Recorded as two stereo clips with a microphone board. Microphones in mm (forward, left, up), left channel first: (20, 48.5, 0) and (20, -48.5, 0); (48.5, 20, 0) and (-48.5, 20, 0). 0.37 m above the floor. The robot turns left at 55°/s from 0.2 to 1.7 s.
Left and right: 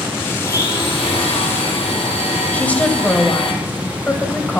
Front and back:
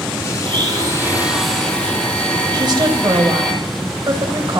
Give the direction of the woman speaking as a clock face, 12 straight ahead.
7 o'clock.